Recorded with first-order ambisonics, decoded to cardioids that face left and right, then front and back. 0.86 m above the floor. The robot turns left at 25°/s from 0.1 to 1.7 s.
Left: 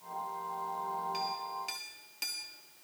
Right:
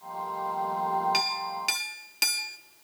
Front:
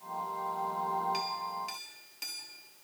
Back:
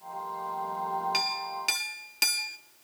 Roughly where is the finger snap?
I don't hear a finger snap.